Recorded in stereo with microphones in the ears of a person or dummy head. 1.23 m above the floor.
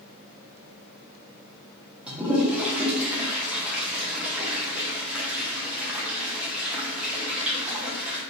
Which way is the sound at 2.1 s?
5° right (ahead or behind).